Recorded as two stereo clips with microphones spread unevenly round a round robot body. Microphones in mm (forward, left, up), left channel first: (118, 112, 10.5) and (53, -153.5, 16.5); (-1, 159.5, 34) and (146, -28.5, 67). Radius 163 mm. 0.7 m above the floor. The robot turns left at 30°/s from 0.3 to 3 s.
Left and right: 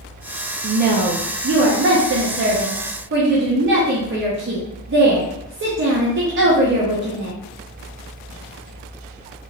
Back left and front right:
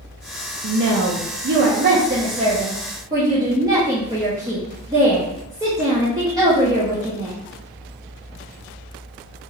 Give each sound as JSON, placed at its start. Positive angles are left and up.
{"t": 0.6, "sound": "a woman speaking", "azimuth_deg": -60, "distance_m": 0.5}